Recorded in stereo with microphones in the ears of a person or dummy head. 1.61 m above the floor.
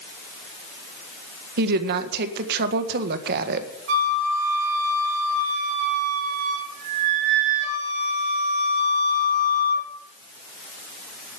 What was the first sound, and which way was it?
A woman speaking, 50° right (ahead or behind).